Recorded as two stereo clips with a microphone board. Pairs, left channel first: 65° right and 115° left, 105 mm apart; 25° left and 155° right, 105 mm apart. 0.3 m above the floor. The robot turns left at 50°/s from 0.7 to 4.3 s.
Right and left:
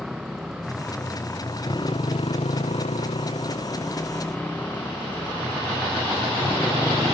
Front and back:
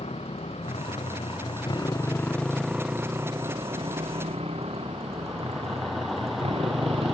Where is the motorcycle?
25° left; by 7.1 s 135° right.